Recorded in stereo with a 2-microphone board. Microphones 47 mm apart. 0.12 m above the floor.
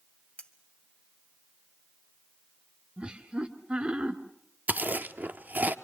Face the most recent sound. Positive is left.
turn(degrees=-35)  # may be behind; listen again after turning